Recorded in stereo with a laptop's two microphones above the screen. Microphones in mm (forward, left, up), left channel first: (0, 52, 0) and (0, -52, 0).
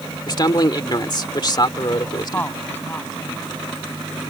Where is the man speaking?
45° left (ahead or behind).